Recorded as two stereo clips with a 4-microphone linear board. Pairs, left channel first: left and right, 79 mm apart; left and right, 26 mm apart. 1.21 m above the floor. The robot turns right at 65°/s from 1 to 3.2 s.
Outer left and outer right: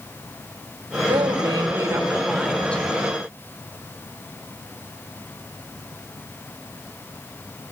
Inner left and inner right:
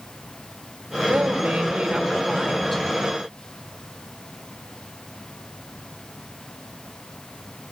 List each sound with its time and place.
1.1 s a woman speaking: 90° right, 4 m; by 2.9 s 25° left, 4 m